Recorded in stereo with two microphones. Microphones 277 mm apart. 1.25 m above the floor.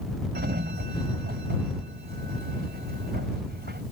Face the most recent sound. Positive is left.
turn(degrees=-35)  # may be behind; listen again after turning